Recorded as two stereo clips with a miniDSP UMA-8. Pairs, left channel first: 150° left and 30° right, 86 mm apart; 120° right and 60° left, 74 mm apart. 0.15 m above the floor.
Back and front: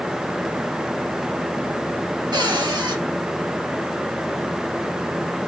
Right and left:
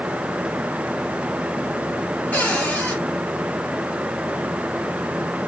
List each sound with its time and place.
2.3 s a cupboard door: 50° right, 2 m